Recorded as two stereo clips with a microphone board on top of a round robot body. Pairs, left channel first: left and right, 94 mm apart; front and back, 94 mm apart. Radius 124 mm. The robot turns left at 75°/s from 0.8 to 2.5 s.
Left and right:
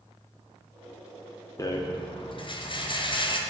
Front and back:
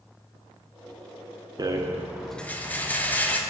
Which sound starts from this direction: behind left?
A rattle, at 1.6 s.